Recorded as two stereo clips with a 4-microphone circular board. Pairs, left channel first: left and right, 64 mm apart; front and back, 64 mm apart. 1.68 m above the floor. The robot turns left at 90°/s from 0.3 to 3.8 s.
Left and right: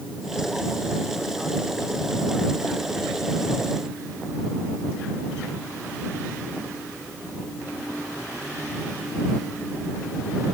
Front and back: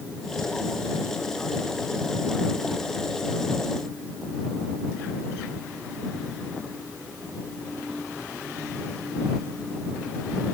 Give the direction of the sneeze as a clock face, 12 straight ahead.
I don't hear a sneeze.